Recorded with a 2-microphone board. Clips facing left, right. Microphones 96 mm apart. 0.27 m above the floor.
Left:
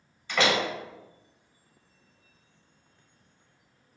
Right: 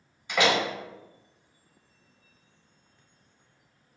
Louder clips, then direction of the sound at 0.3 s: Right 1 dB; 15° right (ahead or behind).